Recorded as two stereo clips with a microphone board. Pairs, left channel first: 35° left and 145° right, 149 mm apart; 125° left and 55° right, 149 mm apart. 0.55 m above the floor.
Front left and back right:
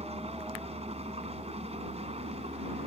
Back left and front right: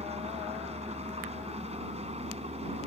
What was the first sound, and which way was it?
An engine running, 100° right.